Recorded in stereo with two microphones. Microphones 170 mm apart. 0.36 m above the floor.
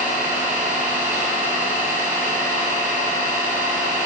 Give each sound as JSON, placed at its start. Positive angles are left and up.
{"t": 0.0, "sound": "an engine running", "side_deg": -65, "distance_m": 2.0}